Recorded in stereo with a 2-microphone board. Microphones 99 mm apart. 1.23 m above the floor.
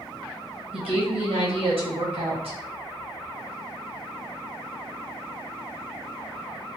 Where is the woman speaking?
70° right (ahead or behind), 1.5 m.